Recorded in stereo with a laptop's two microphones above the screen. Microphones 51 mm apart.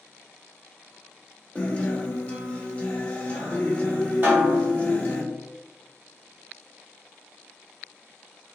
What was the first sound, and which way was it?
A guitar, 25° left (ahead or behind).